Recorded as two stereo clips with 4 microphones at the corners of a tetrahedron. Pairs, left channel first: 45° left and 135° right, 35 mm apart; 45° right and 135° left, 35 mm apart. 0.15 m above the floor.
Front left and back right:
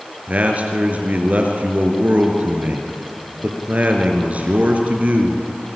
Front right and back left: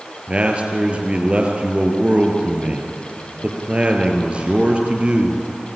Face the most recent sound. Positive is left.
turn(degrees=-175)